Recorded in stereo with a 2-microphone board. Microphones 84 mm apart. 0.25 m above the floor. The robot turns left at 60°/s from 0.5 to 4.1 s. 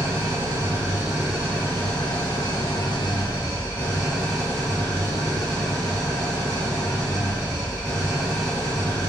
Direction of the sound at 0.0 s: 135° right.